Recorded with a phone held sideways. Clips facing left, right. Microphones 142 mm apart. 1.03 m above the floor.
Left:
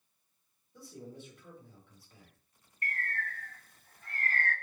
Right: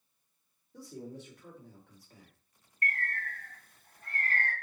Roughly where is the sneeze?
No sneeze in this recording.